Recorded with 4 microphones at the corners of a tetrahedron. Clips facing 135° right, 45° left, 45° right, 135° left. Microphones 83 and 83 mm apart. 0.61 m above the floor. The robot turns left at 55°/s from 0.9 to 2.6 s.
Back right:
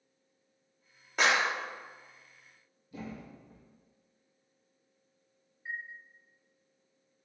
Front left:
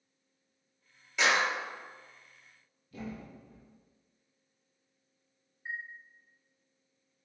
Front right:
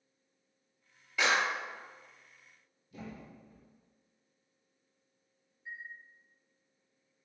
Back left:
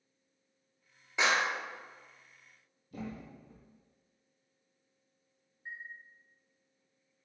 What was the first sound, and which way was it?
A clap, 165° right.